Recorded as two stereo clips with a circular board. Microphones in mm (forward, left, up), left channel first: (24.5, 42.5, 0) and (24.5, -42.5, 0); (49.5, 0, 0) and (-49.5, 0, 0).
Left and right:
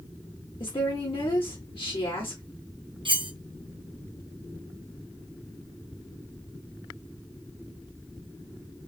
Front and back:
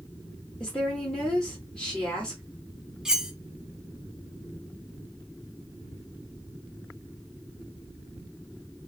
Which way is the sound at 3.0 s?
95° right.